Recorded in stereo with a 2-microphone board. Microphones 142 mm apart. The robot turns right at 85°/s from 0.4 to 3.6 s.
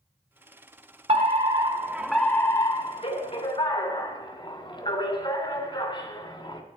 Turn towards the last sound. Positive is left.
turn(degrees=125)